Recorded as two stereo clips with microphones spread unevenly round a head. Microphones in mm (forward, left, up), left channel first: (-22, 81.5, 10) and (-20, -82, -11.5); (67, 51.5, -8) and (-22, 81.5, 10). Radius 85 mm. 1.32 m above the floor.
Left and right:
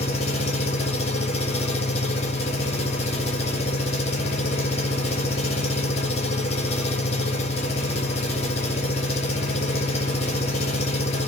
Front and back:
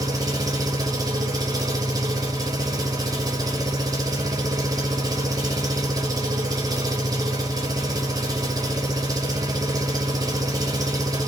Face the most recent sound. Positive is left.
turn(degrees=130)